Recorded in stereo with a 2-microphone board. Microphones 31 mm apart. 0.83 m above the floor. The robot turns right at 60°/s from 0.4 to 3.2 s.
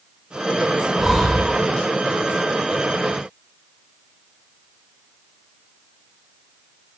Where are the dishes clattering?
I don't hear dishes clattering.